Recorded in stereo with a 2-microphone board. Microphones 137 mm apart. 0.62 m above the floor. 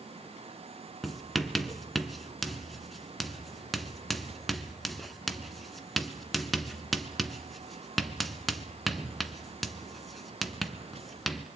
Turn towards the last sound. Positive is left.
turn(degrees=0)  # may be behind; listen again after turning